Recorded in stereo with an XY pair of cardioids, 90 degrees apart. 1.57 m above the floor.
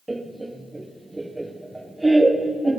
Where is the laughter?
15° right, 1.0 m.